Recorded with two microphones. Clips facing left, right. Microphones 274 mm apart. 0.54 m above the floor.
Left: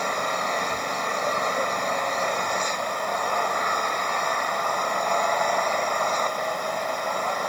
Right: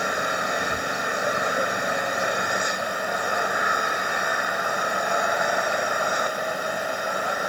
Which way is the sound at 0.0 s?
10° right (ahead or behind).